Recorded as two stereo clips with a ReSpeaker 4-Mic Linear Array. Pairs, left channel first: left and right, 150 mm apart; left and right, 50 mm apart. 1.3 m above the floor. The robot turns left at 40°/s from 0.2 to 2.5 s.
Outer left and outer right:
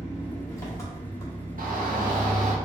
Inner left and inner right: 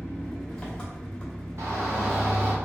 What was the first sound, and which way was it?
An engine running, 15° left (ahead or behind).